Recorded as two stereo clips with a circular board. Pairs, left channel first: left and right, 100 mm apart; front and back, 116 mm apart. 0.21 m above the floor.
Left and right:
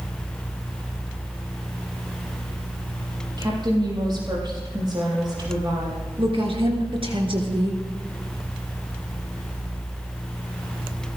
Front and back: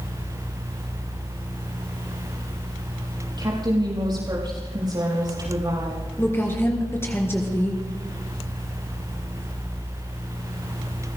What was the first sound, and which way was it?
A woman speaking, 130° right.